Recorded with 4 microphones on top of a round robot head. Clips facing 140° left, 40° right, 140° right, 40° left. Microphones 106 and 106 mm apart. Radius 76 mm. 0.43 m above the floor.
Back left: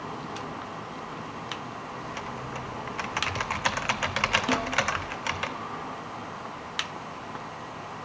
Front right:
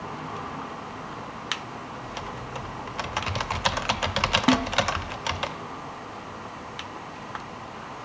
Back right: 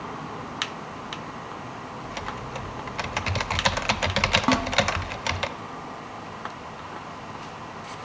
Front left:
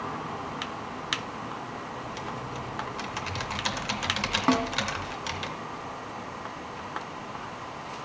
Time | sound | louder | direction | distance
2.0 | typing on a keyboard | even, back right 1 dB | 110° right | 0.6 m
4.5 | a snare drum | front right 9 dB, front left 1 dB | 55° right | 1.4 m